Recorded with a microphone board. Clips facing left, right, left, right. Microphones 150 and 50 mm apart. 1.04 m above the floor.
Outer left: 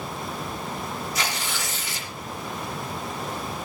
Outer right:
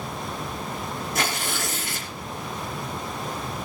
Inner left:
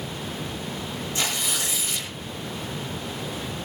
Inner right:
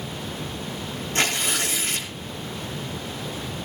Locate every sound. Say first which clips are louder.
1.1 s tearing paper: outer right 2 dB, inner right 5 dB; 50° right (ahead or behind), 5 m